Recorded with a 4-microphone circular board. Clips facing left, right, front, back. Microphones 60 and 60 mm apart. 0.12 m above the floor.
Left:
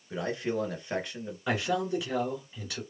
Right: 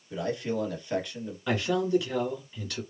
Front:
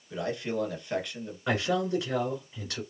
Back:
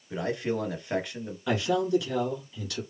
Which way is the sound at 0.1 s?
130° left.